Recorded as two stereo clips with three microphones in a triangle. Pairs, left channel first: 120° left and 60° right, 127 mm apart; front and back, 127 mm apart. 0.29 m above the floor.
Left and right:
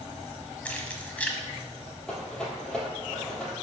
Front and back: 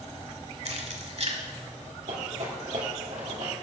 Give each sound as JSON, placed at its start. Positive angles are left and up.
{"t": 0.7, "sound": "keys jangling", "azimuth_deg": -165, "distance_m": 1.0}
{"t": 2.1, "sound": "a rattle", "azimuth_deg": -155, "distance_m": 3.0}